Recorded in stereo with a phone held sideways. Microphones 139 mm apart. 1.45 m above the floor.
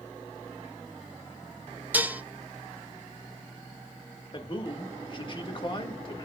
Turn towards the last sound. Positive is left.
turn(degrees=35)  # may be behind; listen again after turning